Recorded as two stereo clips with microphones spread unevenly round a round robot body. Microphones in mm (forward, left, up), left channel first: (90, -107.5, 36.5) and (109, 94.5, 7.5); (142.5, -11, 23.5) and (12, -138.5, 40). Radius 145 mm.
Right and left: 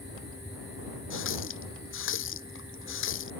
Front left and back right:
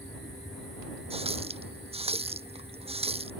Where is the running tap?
80° right.